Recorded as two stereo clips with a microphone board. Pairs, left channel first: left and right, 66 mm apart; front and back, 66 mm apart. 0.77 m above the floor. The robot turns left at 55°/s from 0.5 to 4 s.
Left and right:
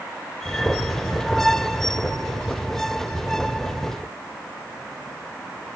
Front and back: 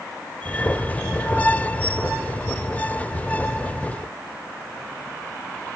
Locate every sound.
Only background noise.